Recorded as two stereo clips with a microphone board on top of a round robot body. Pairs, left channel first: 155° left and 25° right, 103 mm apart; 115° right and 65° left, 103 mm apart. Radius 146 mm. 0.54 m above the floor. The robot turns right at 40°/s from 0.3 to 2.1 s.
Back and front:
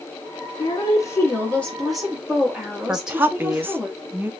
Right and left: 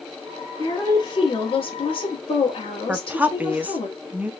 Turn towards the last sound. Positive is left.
turn(degrees=15)